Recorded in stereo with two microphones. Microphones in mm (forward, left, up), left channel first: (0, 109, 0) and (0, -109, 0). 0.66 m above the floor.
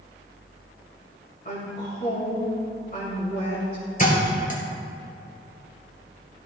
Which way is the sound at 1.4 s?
45° left (ahead or behind).